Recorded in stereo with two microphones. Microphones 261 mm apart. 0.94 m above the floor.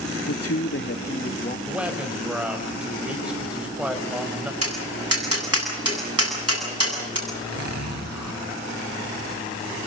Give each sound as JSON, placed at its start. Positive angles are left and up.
{"t": 0.3, "sound": "a man speaking", "side_deg": 75, "distance_m": 0.7}
{"t": 1.7, "sound": "a man speaking", "side_deg": -5, "distance_m": 4.0}
{"t": 4.6, "sound": "tapping", "side_deg": -65, "distance_m": 8.5}
{"t": 7.3, "sound": "a zipper", "side_deg": 85, "distance_m": 4.0}